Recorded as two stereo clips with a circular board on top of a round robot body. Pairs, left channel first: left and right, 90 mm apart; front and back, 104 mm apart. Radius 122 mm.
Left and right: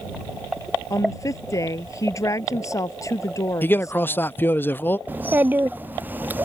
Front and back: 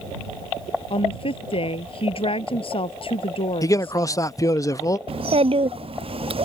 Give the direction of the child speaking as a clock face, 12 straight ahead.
5 o'clock.